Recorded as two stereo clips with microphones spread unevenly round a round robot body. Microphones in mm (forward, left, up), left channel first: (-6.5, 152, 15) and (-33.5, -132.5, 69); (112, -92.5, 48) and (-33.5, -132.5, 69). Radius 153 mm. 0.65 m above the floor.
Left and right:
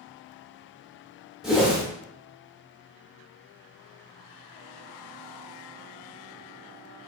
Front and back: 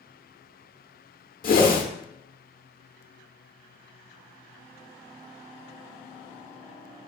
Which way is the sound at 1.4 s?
5° right.